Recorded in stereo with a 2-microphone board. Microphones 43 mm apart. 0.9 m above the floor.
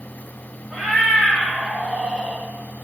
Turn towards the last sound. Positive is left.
turn(degrees=-35)  # may be behind; listen again after turning